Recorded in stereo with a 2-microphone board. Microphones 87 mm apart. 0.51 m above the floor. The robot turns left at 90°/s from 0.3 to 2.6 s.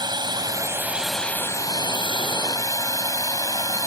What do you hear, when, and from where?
0.0 s a drone: 60° right (ahead or behind); by 3.9 s 45° left (ahead or behind)